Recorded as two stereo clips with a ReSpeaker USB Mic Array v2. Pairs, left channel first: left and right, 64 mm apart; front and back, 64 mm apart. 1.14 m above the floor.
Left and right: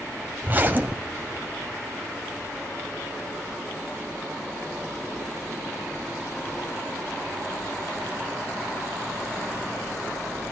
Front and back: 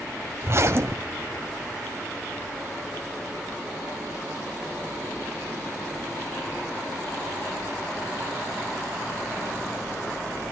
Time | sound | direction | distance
0.4 | a zipper | 145° right | 1.6 m